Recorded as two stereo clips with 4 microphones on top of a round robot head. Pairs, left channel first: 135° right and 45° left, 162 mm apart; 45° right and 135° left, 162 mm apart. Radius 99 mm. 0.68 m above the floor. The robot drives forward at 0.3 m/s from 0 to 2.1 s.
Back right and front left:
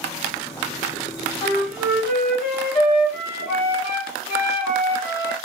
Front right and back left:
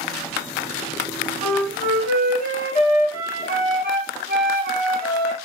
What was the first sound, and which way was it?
A flute, 130° left.